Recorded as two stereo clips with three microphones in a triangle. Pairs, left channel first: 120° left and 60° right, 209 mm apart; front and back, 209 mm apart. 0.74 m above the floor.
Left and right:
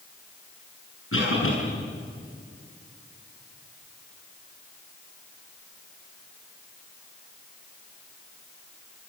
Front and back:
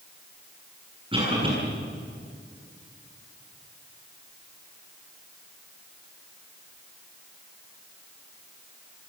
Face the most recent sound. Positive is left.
turn(degrees=115)